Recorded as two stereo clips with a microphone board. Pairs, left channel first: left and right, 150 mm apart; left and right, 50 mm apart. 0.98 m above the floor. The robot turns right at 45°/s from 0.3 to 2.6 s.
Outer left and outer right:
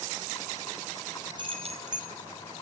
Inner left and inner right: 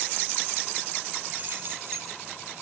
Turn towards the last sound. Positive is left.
turn(degrees=-95)